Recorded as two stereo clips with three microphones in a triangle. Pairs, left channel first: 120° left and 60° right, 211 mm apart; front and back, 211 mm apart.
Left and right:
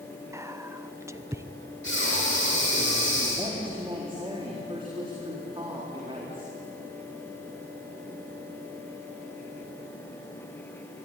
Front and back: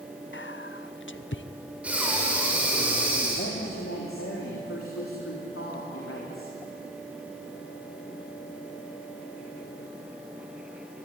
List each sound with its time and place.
0.3 s whispering: 15° left, 0.7 m
1.8 s breathing: 95° left, 5.5 m
3.4 s a woman speaking: 5° left, 3.5 m